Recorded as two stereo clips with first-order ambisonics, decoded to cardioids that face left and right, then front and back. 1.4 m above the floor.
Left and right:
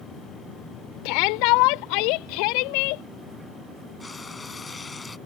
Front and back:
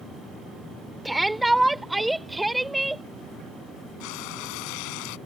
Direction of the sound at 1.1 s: 95° left.